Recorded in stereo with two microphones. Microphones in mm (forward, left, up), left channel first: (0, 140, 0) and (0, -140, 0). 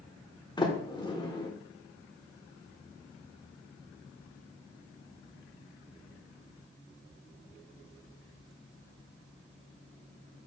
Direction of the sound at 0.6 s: 15° left (ahead or behind).